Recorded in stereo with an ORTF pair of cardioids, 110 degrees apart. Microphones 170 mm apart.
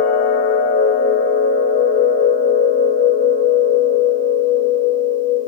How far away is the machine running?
About 1.2 m.